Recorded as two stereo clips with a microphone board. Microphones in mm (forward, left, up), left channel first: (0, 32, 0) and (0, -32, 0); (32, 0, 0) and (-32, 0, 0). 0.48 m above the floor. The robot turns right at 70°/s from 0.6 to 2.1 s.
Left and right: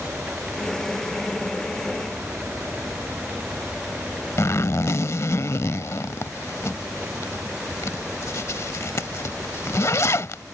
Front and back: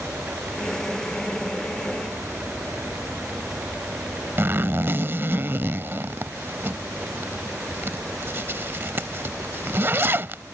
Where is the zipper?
130° left.